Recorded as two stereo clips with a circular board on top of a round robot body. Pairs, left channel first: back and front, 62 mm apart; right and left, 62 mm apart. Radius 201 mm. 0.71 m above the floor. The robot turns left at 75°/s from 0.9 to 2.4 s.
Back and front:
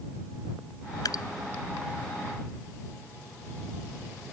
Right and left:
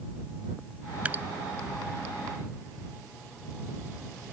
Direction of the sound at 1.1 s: 160° left.